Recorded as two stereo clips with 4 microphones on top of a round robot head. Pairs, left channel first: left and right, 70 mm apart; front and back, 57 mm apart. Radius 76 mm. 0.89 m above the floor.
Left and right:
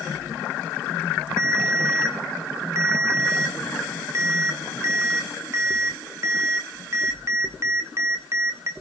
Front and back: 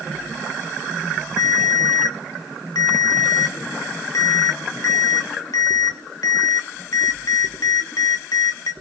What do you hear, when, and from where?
1.4 s a ringtone: 30° right, 1.2 m